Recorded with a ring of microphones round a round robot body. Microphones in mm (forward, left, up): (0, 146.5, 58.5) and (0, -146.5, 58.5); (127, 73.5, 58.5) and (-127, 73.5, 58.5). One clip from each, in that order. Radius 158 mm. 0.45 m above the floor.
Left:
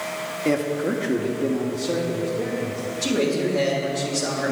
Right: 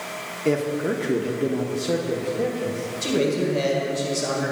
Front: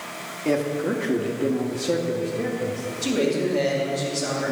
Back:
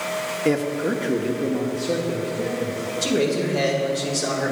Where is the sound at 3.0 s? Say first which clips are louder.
Even, back 1 dB; 170° right, 2 m.